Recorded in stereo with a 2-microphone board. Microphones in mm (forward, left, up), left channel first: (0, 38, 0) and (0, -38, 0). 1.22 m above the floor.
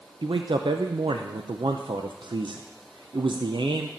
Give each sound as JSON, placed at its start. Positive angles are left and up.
{"t": 0.2, "sound": "a man speaking", "side_deg": -70, "distance_m": 0.6}